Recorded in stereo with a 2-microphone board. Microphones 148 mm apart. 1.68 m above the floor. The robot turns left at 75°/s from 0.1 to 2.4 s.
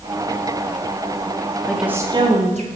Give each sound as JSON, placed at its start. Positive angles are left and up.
{"t": 1.7, "sound": "a woman speaking", "azimuth_deg": 5, "distance_m": 1.9}